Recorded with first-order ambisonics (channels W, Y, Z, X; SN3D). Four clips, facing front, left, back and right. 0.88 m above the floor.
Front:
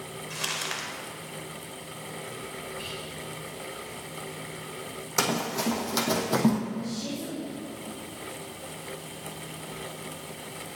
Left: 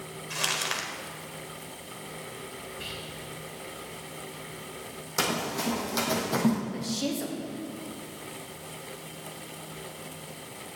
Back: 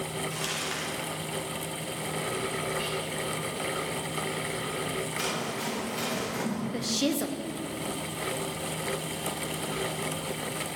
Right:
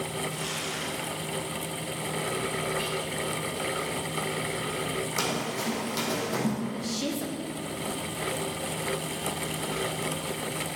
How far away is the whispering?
About 4 m.